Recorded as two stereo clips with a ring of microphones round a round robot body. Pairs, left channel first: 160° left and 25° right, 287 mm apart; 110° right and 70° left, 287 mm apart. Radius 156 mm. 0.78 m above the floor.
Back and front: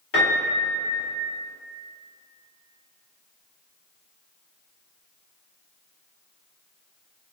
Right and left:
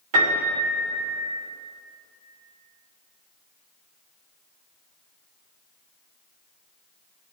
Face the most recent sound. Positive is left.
turn(degrees=105)